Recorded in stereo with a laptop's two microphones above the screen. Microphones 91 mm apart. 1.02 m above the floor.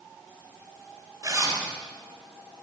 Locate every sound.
1.2 s a zipper: 35° right (ahead or behind), 4.5 m